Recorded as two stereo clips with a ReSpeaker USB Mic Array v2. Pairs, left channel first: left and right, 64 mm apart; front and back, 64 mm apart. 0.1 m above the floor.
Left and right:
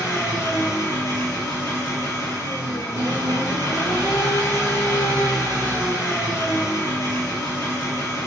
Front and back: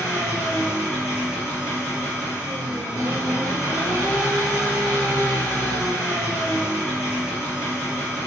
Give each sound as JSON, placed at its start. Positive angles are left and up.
{"t": 0.0, "sound": "an engine running", "azimuth_deg": 110, "distance_m": 1.5}